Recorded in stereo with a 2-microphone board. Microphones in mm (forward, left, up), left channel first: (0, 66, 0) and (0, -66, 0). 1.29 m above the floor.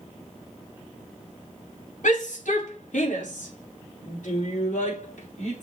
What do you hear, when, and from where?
2.0 s a shout: 75° left (ahead or behind), 2.5 m; by 5.6 s 65° left (ahead or behind), 4.5 m